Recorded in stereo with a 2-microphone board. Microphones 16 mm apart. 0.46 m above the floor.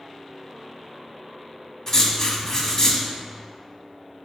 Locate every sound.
1.9 s writing: 35° left (ahead or behind), 0.6 m